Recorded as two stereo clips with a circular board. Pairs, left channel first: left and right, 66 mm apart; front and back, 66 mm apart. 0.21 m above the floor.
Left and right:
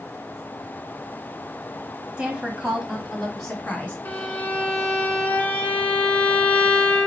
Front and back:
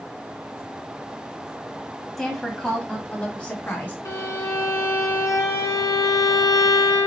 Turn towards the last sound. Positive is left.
turn(degrees=30)